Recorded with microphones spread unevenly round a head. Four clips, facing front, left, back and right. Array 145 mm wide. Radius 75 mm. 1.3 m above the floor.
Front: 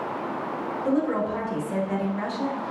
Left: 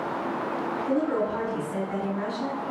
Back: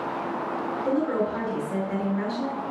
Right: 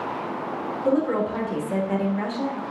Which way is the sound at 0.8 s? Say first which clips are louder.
Right 4 dB, front 1 dB; 95° right.